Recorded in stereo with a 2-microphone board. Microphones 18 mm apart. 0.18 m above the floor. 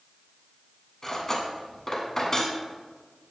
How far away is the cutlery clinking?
About 1.0 m.